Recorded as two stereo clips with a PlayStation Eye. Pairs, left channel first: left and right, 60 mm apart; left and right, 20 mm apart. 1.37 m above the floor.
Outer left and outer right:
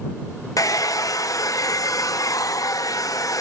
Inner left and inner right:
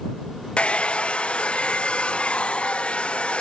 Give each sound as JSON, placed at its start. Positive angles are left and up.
{"t": 0.6, "sound": "a hair dryer", "side_deg": 80}